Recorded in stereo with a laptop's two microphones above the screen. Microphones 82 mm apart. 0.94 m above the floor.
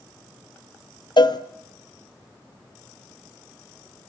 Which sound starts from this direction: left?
A cowbell, at 1.2 s.